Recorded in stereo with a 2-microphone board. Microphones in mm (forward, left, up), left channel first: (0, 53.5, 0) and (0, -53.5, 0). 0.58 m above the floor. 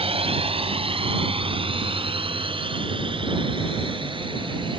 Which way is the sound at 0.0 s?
65° right (ahead or behind).